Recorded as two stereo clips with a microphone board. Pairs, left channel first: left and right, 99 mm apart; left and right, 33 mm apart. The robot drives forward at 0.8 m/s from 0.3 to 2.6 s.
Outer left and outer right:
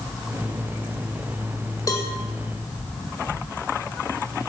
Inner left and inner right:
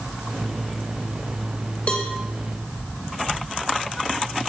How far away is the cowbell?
About 1.6 m.